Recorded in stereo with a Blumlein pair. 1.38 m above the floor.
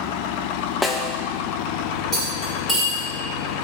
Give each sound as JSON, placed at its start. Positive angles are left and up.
{"t": 0.8, "sound": "a snare drum", "azimuth_deg": 10, "distance_m": 0.7}
{"t": 2.1, "sound": "cutlery clinking", "azimuth_deg": 5, "distance_m": 3.5}